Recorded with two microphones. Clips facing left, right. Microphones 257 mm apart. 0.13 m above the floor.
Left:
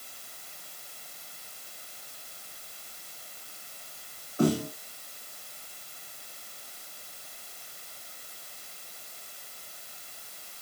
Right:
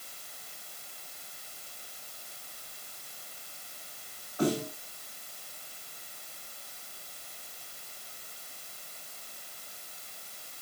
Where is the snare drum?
30° left (ahead or behind), 8.5 m.